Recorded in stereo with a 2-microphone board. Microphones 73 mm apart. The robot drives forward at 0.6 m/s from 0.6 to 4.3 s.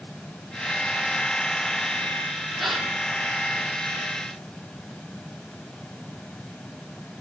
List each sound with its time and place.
2.6 s a gasp: centre (ahead or behind), 3 m